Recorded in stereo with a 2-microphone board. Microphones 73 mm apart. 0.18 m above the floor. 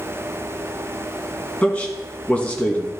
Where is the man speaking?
20° left (ahead or behind), 1.7 m.